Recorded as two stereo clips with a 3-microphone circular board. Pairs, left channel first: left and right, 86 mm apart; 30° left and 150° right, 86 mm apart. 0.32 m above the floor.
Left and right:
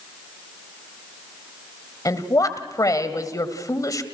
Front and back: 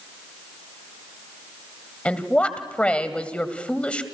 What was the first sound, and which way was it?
A woman speaking, 100° left.